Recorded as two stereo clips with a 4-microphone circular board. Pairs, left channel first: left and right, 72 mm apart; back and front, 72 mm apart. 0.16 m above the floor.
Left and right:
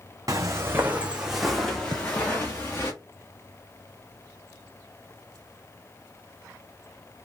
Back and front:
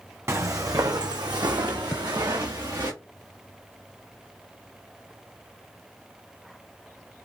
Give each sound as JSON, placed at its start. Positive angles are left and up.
{"t": 0.3, "sound": "footsteps", "azimuth_deg": -50, "distance_m": 0.8}
{"t": 1.9, "sound": "a thud", "azimuth_deg": -110, "distance_m": 0.6}